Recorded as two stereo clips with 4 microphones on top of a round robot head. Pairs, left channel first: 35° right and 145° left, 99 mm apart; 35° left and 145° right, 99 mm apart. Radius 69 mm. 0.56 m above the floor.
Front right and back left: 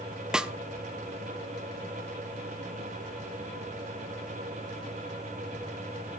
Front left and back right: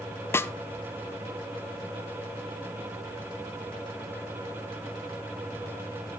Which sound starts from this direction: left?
A snare drum, at 0.3 s.